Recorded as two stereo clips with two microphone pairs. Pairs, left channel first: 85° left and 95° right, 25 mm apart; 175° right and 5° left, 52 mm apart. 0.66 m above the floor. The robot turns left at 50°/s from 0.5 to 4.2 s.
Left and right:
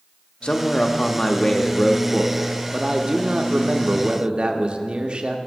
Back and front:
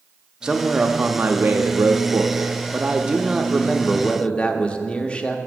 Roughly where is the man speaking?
Left.